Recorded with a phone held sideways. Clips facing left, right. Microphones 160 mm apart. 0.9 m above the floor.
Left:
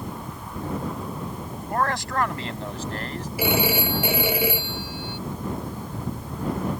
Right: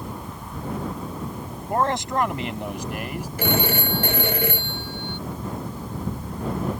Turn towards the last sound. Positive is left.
turn(degrees=10)  # may be behind; listen again after turning